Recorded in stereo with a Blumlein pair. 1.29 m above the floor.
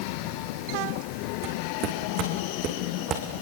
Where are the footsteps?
40° right, 6.5 m; by 3.2 s 30° right, 5.5 m.